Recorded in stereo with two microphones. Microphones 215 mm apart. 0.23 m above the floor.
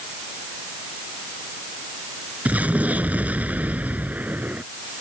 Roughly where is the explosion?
Centre.